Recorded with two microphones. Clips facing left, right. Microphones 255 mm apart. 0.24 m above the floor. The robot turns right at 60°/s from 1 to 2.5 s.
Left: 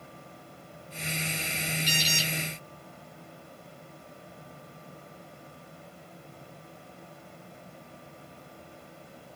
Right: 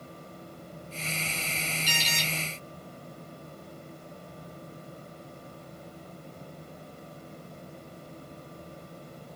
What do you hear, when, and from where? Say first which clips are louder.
1.9 s an alarm: left 3 dB; 15° left (ahead or behind), 2 m; by 2.3 s centre (ahead or behind), 2 m